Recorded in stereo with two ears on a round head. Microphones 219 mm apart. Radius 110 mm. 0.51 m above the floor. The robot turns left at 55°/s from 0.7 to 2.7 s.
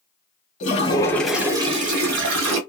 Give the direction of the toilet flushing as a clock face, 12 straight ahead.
11 o'clock.